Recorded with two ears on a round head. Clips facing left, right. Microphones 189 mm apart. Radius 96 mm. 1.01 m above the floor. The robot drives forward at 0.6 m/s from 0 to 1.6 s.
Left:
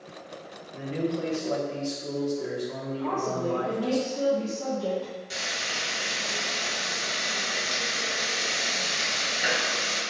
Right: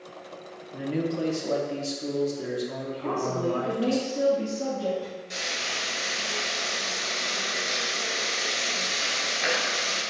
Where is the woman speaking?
30° right (ahead or behind), 1.5 m.